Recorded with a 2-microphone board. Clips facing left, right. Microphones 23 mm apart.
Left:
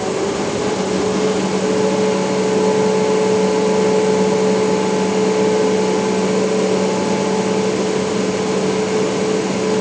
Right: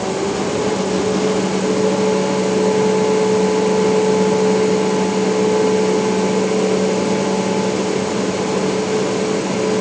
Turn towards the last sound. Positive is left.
No sound to turn to.